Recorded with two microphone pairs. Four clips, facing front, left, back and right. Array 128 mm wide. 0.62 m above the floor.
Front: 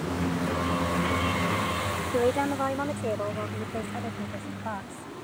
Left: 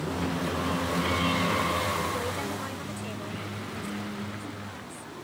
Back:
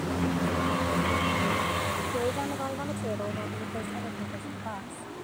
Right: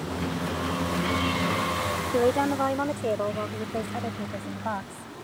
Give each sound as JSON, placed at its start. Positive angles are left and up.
{"t": 2.1, "sound": "a woman speaking", "azimuth_deg": -65}